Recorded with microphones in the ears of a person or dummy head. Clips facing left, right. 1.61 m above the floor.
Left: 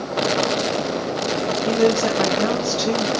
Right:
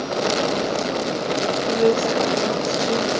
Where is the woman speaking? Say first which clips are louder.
Left 1 dB; 65° left (ahead or behind), 0.9 m.